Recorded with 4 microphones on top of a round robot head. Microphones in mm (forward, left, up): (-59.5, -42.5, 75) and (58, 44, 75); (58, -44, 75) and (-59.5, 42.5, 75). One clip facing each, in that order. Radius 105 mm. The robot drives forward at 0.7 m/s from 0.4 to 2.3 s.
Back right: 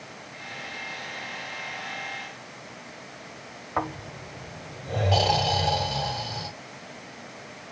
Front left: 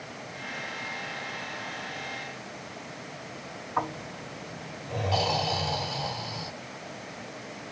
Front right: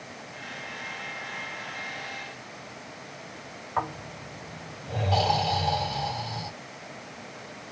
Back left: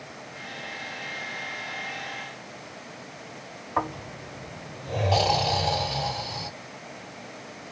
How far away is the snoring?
About 5 m.